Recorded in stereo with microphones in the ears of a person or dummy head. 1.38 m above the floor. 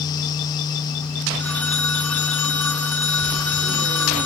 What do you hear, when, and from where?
1.4 s a phone ringing: 5° left (ahead or behind), 1.5 m